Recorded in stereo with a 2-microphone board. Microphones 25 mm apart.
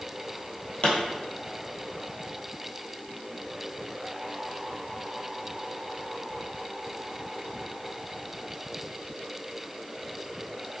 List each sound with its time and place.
0.8 s a pop: 55° left (ahead or behind), 0.9 m